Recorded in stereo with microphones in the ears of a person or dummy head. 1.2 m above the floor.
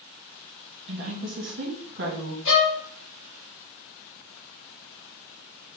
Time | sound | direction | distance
0.9 | a woman speaking | 60° right (ahead or behind) | 1.1 m
2.5 | a violin | 70° left (ahead or behind) | 1.4 m